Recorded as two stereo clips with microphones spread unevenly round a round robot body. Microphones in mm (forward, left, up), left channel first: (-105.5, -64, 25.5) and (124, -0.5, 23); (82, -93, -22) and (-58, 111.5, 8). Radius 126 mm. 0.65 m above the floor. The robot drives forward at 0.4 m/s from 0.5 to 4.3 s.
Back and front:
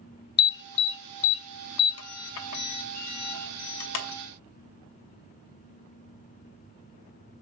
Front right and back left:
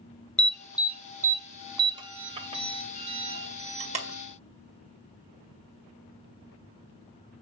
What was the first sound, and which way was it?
An alarm, 135° right.